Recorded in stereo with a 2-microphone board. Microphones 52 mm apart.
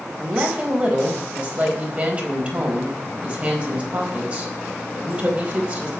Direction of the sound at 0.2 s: 25° right (ahead or behind).